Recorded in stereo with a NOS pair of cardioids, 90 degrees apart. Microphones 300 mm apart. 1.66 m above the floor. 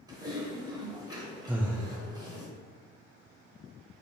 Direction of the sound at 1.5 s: 5° right.